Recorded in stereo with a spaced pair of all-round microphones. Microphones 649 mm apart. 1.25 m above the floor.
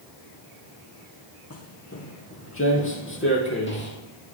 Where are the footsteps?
20° left (ahead or behind), 1.6 m; by 4.0 s 15° left (ahead or behind), 2.5 m.